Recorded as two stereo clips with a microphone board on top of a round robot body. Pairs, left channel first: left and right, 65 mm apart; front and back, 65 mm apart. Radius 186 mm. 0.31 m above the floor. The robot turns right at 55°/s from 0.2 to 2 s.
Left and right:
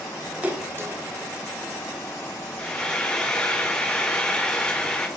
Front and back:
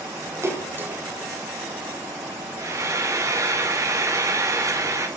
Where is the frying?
165° left, 1.9 m.